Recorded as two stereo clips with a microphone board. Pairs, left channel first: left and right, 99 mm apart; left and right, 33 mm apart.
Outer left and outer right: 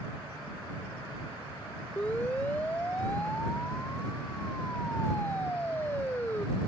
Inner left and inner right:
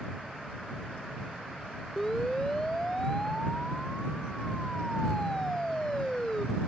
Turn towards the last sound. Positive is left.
turn(degrees=20)  # may be behind; listen again after turning